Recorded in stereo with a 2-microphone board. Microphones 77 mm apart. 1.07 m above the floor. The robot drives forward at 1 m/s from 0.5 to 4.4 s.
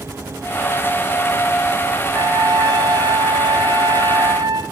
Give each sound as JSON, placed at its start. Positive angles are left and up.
{"t": 2.1, "sound": "a trumpet", "side_deg": -50, "distance_m": 2.0}